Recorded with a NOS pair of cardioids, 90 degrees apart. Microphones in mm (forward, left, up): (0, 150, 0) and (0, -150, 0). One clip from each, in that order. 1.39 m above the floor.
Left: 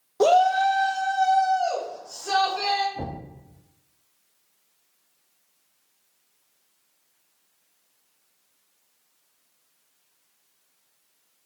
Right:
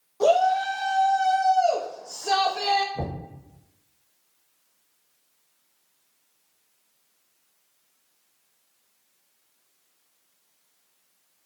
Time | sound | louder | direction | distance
0.2 | a shout | left 2 dB | 40° left | 0.5 m
3.0 | knocking | right 1 dB | 40° right | 0.9 m